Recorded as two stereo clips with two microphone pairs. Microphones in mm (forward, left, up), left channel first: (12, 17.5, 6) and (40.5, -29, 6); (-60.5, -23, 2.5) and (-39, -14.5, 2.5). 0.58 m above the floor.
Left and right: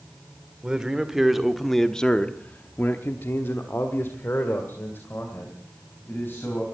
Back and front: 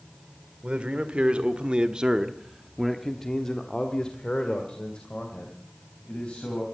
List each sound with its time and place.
0.6 s a man speaking: 15° left, 1.7 m; by 6.7 s 170° left, 3.5 m